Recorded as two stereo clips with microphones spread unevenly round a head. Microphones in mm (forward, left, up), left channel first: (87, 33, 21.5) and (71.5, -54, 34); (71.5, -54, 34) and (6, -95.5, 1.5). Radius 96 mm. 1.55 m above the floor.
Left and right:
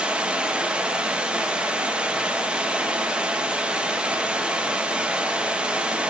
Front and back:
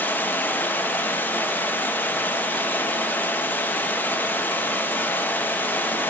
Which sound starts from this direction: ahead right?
Running water, at 0.0 s.